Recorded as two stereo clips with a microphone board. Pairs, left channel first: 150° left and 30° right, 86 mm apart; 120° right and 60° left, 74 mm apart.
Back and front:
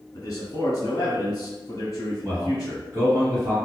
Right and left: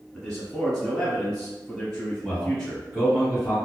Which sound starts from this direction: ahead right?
A man speaking, at 2.2 s.